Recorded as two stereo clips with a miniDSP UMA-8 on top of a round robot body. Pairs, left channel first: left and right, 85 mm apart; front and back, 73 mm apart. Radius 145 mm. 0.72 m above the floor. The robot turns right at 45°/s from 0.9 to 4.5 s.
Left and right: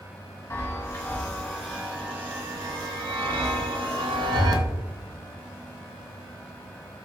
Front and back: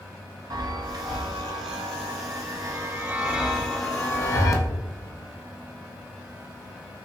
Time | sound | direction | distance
0.5 | a chime | 150° left | 0.5 m